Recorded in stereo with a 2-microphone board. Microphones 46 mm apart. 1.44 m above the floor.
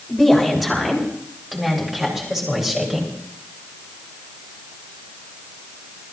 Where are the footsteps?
I don't hear footsteps.